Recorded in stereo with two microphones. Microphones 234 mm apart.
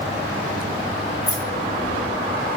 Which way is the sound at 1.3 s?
55° left (ahead or behind).